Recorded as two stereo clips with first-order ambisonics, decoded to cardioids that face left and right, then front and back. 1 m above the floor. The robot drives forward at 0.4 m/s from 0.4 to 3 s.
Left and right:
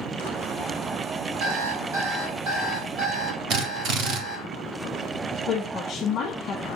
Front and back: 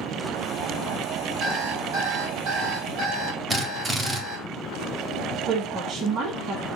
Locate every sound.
1.4 s an alarm clock: 125° right, 1.2 m; by 4.5 s 145° right, 1.6 m
3.5 s a drill: 115° right, 0.7 m
5.5 s a woman speaking: 135° left, 0.8 m